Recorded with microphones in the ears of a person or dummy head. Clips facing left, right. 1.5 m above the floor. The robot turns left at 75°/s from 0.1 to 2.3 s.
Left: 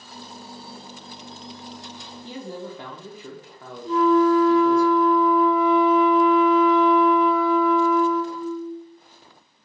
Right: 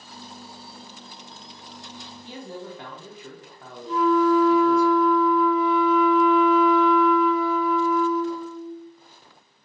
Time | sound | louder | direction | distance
2.2 | a man speaking | left 3 dB | 60° left (ahead or behind) | 0.5 m
3.9 | a flute | left 2 dB | 35° left (ahead or behind) | 0.9 m